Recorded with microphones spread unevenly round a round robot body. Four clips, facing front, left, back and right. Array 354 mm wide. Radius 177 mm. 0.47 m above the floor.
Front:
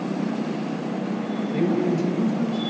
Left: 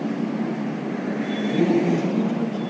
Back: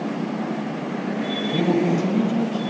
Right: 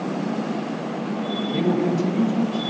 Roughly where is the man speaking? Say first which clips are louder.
Left 2 dB, back 2 dB; behind.